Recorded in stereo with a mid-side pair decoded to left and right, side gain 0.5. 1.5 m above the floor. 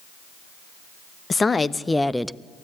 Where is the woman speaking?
30° left, 1.0 m; by 2.4 s 10° right, 0.6 m.